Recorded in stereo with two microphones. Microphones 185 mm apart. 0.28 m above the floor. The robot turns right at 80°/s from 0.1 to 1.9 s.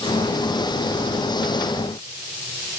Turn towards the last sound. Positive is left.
No sound to turn to.